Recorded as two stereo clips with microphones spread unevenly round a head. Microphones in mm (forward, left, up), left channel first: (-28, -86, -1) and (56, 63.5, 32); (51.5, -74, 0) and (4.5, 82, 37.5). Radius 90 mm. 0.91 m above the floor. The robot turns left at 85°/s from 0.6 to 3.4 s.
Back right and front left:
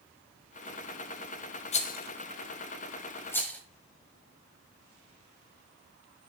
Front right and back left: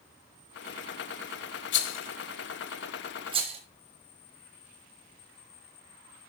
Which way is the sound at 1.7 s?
65° right.